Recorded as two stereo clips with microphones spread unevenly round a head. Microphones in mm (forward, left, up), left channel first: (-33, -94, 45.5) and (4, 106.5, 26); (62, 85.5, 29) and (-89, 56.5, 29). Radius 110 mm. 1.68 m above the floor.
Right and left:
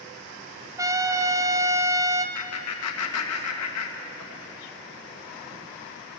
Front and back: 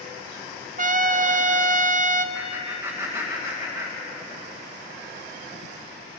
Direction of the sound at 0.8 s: 155° left.